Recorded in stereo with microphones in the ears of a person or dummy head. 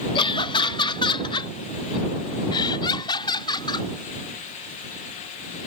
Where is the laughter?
25° left (ahead or behind).